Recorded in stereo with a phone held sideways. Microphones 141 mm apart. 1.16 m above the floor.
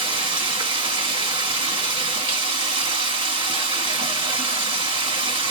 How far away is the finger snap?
I don't hear a finger snap.